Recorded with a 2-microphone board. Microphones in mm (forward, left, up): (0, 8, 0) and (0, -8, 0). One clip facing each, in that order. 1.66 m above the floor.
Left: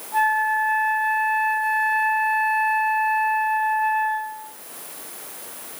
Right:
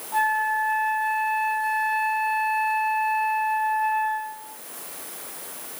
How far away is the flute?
About 8 m.